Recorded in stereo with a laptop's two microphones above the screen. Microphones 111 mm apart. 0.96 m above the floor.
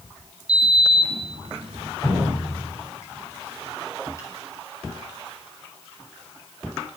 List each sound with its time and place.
0.5 s a sliding door: 70° right (ahead or behind), 2.5 m
2.0 s dripping: 25° left (ahead or behind), 7 m